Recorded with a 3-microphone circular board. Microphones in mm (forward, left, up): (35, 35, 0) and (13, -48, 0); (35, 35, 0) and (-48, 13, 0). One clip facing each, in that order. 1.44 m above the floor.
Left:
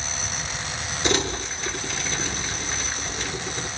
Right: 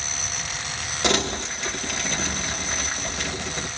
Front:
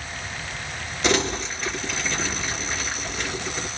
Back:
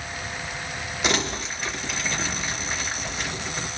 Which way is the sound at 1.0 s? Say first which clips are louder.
Right 1 dB, front 4 dB; 85° right.